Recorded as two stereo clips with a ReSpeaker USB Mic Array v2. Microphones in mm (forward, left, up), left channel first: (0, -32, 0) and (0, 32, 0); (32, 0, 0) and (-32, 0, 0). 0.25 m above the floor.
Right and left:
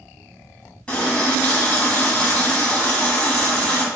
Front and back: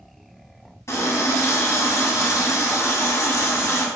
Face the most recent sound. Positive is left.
turn(degrees=-25)